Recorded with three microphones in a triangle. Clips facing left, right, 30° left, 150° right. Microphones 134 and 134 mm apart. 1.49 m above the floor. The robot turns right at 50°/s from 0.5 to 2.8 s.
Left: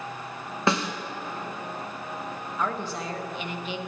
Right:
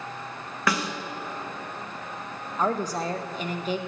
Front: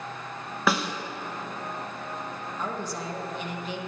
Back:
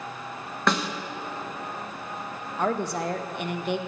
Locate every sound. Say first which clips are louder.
0.7 s a snare drum: left 2 dB, even; 105° left, 0.6 m; by 0.9 s 115° left, 0.6 m
2.6 s a woman speaking: right 5 dB, back 8 dB; 150° right, 0.6 m; by 3.8 s 135° right, 0.6 m